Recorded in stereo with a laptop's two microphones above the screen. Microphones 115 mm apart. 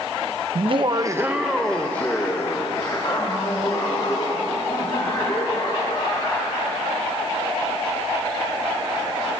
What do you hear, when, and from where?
0.6 s laughter: 55° right (ahead or behind), 0.6 m; by 6.8 s 45° left (ahead or behind), 3.5 m